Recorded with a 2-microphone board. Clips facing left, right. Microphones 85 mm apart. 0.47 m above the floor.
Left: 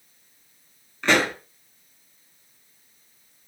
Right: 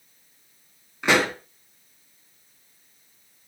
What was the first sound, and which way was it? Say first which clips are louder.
A pop: even; 15° right (ahead or behind).